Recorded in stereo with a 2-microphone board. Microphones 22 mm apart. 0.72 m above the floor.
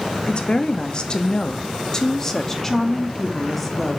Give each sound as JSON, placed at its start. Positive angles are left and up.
{"t": 0.3, "sound": "a woman speaking", "side_deg": 40, "distance_m": 1.1}